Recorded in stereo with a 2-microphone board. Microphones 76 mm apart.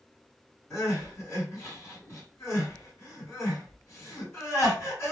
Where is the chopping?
I don't hear chopping.